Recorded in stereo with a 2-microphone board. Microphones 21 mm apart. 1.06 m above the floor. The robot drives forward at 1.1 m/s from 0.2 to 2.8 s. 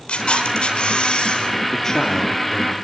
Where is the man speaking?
35° left (ahead or behind), 2.5 m; by 2.7 s 25° left (ahead or behind), 3.5 m.